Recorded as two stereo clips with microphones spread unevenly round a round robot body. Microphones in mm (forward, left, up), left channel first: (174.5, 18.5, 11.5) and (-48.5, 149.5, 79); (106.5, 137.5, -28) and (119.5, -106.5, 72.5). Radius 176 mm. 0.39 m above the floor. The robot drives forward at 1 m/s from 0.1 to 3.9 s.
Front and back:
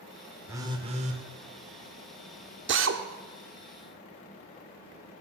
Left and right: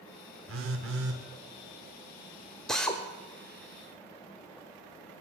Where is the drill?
130° left, 1.1 m; by 3.0 s 150° left, 1.3 m.